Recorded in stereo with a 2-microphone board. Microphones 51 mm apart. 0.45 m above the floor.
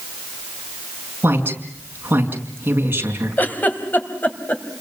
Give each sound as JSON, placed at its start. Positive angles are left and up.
{"t": 1.2, "sound": "a woman speaking", "side_deg": -45, "distance_m": 5.5}
{"t": 3.4, "sound": "a giggle", "side_deg": 40, "distance_m": 2.5}